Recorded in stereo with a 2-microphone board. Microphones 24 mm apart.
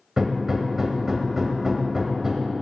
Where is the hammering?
15° right (ahead or behind), 1.8 m.